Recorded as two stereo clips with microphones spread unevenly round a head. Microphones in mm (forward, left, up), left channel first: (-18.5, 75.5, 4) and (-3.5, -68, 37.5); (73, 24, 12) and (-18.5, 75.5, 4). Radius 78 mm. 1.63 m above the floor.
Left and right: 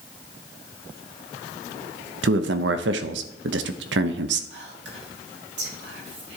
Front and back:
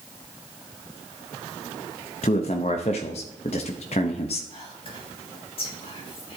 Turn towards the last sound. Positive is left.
turn(degrees=-85)